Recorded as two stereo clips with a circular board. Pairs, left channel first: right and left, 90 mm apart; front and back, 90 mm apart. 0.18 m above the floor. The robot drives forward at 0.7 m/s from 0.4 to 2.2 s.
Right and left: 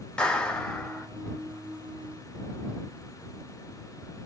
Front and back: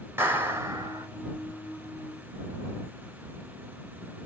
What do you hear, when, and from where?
0.2 s a clap: 160° right, 0.9 m; by 1.1 s 170° right, 1.2 m